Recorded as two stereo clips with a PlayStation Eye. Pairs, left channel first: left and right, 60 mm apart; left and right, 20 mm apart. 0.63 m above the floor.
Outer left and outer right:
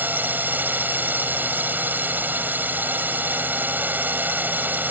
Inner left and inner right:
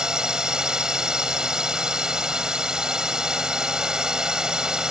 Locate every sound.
0.0 s a drone: 30° right (ahead or behind)